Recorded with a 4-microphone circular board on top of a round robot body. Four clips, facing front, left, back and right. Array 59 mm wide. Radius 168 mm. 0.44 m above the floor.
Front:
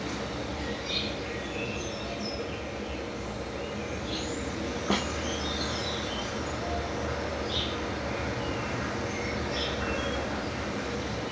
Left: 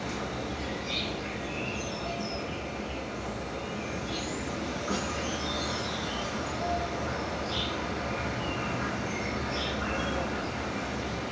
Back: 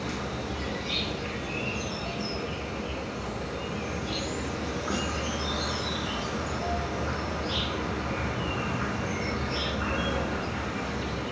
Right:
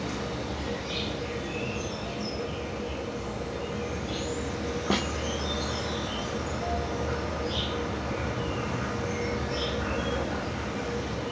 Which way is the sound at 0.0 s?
Straight behind.